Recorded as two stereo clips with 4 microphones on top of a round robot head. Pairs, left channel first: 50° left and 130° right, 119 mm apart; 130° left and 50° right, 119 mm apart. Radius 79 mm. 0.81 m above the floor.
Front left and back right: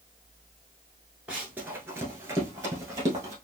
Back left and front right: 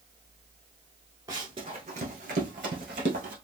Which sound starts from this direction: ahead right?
Running footsteps, at 1.3 s.